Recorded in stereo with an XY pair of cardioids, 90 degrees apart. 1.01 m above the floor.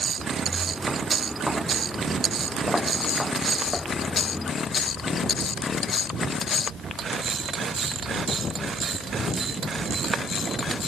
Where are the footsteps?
5° right; by 4.5 s 20° left.